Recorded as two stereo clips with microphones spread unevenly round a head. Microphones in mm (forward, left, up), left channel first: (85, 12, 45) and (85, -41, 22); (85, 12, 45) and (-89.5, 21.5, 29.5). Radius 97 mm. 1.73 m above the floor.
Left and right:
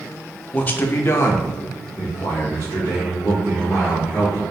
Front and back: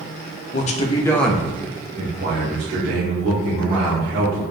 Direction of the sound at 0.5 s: 40° left.